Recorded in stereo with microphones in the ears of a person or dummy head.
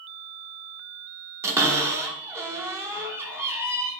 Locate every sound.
1.4 s a cupboard door: 10° right (ahead or behind), 0.5 m